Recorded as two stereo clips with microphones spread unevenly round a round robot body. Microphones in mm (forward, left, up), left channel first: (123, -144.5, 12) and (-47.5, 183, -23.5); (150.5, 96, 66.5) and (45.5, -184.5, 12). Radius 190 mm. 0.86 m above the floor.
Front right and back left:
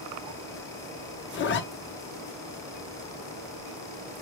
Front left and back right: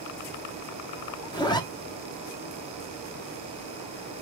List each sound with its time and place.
1.3 s a zipper: 5° right, 0.7 m